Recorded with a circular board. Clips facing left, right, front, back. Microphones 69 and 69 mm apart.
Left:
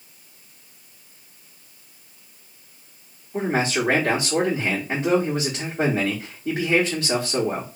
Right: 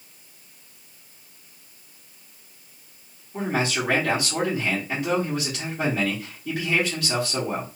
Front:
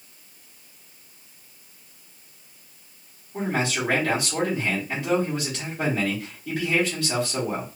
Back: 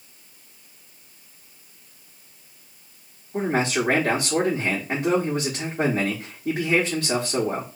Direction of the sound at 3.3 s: 155° left.